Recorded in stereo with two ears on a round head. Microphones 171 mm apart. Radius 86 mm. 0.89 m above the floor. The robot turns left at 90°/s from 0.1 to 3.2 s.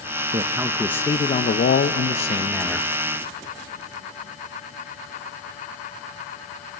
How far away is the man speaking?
About 0.5 m.